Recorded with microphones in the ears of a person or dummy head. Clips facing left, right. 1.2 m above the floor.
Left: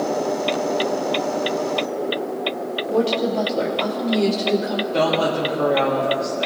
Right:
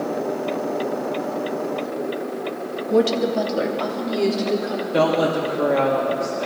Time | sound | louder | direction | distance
2.9 | a woman speaking | right 2 dB | 35° right (ahead or behind) | 1.8 m
4.9 | a woman speaking | right 2 dB | 5° right (ahead or behind) | 2.5 m